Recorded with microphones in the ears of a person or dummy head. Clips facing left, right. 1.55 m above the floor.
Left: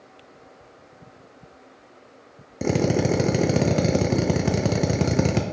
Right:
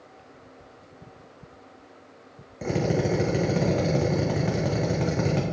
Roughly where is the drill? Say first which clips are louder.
Left 3 dB; left.